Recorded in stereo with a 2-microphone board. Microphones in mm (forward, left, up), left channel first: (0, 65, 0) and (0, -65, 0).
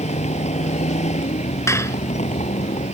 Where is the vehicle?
65° left (ahead or behind).